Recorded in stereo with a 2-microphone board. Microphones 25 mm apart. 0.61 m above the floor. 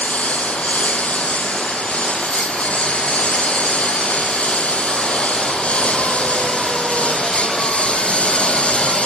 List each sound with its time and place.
0.0 s a lawn mower: 70° left (ahead or behind); by 9.1 s 55° left (ahead or behind)